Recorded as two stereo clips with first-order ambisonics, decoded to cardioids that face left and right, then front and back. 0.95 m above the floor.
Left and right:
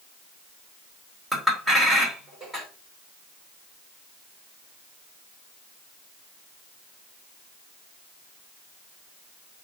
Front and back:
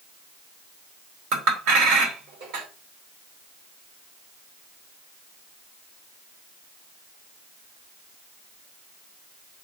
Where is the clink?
170° right, 2.5 m.